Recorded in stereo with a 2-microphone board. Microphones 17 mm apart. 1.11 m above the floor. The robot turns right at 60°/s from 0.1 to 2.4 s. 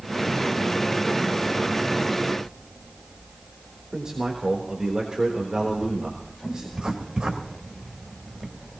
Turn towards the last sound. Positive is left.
turn(degrees=-80)